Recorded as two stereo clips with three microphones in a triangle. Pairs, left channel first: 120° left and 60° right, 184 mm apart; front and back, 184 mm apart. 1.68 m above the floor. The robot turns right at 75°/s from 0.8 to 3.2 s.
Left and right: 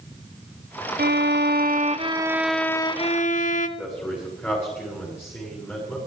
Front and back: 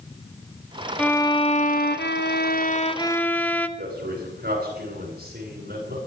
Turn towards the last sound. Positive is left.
turn(degrees=-160)